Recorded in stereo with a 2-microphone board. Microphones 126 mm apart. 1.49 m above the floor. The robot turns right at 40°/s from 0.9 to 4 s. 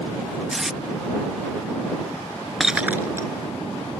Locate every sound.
0.5 s tape being pulled: 5° right (ahead or behind)
2.6 s breaking glass: centre (ahead or behind); by 3.3 s 30° right (ahead or behind)